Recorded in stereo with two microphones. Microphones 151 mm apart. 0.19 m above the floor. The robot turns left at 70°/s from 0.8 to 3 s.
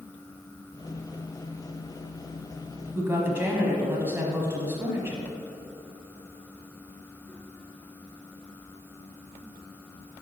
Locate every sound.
3.0 s a woman speaking: 15° right (ahead or behind), 1.0 m